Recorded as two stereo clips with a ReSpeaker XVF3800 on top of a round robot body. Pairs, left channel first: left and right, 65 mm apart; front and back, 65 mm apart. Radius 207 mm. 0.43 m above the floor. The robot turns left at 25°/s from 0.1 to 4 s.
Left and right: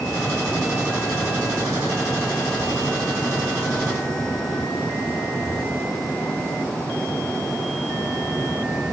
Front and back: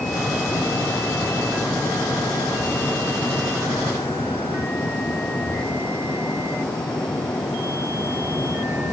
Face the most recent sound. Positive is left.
No sound to turn to.